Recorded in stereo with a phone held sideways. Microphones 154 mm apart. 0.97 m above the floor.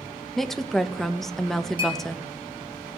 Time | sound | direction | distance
0.4 | a woman speaking | centre (ahead or behind) | 0.6 m
1.8 | a clink | 35° left (ahead or behind) | 1.6 m